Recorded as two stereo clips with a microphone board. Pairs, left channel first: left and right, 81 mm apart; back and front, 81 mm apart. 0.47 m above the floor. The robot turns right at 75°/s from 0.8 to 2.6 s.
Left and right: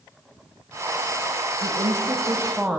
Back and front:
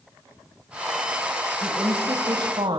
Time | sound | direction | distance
1.6 | a woman speaking | 90° right | 2 m